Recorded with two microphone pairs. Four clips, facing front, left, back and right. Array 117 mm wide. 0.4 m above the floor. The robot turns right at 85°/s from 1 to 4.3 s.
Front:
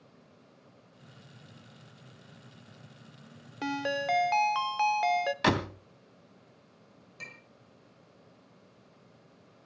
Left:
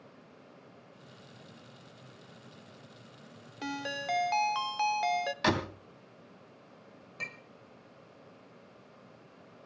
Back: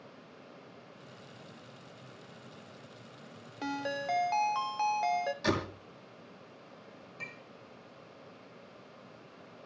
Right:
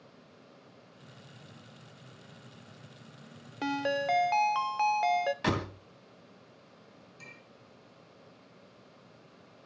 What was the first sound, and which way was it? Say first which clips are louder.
A ringtone: right 7 dB, front 4 dB; 45° right.